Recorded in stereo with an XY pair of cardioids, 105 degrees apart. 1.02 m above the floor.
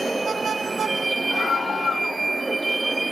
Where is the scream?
35° left.